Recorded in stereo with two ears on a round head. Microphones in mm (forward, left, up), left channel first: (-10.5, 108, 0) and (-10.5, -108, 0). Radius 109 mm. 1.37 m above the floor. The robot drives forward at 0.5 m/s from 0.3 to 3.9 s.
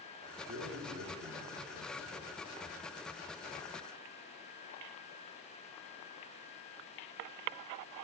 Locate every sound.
0.5 s a man speaking: 45° right (ahead or behind), 2.5 m; by 2.4 s 35° right (ahead or behind), 3.5 m